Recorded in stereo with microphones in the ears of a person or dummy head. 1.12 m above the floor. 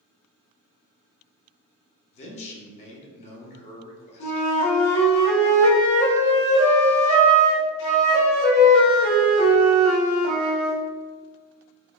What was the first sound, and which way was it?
A man speaking, 35° left (ahead or behind).